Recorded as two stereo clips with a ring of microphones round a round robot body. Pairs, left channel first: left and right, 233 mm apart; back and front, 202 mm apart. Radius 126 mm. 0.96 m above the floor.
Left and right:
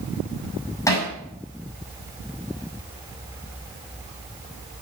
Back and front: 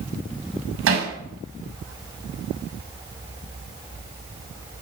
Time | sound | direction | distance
0.9 | hammering | 10° left | 5.5 m